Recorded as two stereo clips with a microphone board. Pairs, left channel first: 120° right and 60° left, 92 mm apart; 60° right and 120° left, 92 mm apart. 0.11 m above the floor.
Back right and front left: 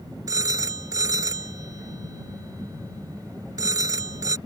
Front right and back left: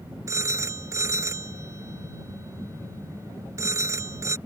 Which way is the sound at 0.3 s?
80° left.